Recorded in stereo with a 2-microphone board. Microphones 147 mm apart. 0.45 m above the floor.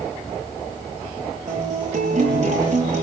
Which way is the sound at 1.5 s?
50° right (ahead or behind).